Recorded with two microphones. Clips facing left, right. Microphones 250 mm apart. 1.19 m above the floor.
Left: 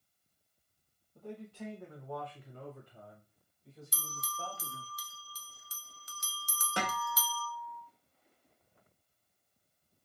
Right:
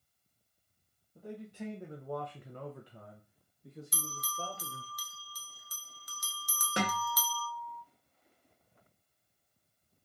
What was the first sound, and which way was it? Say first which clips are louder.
A man speaking: right 1 dB; 5° right (ahead or behind).